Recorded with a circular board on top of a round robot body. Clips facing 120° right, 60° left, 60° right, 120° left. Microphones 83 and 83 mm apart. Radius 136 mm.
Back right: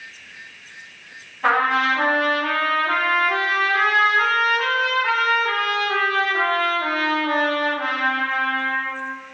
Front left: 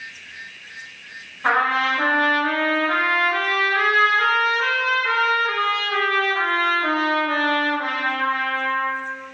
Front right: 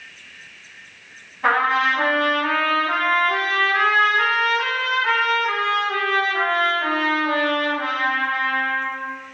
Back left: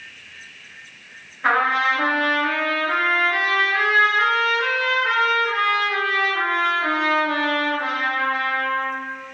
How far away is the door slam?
No door slam in this recording.